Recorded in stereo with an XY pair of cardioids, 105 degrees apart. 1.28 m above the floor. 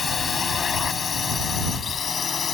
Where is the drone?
40° left; by 2.5 s 45° left.